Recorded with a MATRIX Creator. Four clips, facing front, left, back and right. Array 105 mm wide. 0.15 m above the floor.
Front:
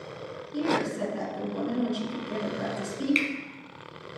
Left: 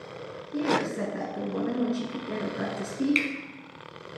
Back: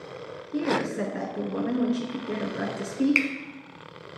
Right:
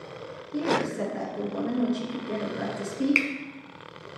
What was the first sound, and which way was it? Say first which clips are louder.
A woman speaking: even, back 1 dB; 160° left.